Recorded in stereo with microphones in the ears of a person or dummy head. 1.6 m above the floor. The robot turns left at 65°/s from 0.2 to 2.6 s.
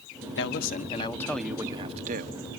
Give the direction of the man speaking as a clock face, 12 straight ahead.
10 o'clock.